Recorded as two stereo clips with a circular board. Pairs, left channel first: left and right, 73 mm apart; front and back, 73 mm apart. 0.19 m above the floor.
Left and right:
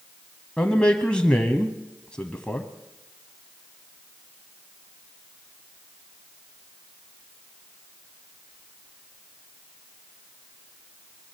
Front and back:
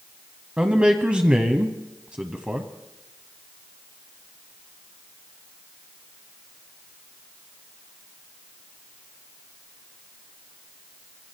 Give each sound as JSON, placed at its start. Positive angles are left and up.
{"t": 0.6, "sound": "a man speaking", "azimuth_deg": 135, "distance_m": 1.1}